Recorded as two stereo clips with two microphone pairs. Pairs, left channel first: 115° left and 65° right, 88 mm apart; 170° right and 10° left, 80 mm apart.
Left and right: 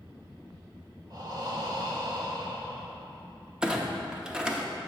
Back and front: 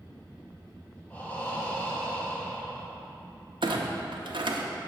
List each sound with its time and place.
1.1 s breathing: 105° right, 0.9 m
3.6 s a clunk: 20° left, 0.6 m